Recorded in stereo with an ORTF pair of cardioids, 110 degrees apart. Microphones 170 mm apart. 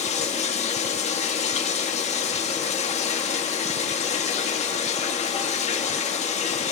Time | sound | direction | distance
0.0 | running water | 40° left | 2 m